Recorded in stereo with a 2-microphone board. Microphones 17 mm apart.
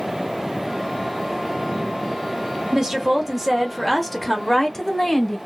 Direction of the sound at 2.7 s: 35° right (ahead or behind).